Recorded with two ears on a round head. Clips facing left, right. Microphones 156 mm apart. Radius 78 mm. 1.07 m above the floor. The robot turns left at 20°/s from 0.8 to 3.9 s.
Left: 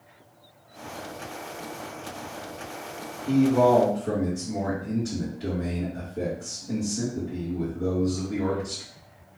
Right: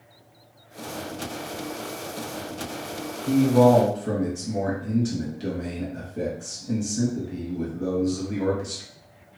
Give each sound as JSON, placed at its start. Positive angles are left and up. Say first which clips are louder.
{"t": 3.3, "sound": "a man speaking", "louder": "right 2 dB", "side_deg": -55, "distance_m": 1.6}